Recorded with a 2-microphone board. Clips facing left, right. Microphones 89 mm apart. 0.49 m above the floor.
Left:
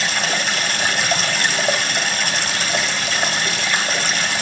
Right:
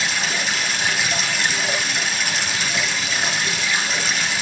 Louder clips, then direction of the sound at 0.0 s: Left 2 dB; 50° left (ahead or behind).